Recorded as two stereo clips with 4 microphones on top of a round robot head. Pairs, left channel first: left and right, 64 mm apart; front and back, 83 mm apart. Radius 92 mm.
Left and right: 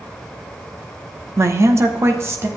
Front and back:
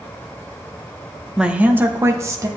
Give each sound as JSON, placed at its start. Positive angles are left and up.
{"t": 1.4, "sound": "a woman speaking", "azimuth_deg": -100, "distance_m": 0.9}